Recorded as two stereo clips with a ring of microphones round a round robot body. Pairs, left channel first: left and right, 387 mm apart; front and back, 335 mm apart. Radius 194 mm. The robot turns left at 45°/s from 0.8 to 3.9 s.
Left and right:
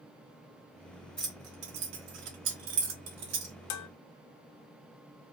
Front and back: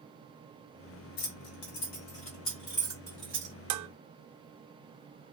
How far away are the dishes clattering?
About 0.5 m.